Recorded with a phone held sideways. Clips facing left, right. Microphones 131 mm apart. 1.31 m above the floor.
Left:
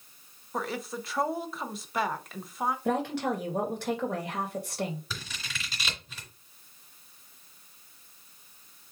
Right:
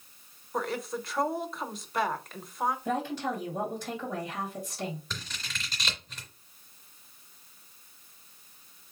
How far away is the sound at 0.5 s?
About 0.8 m.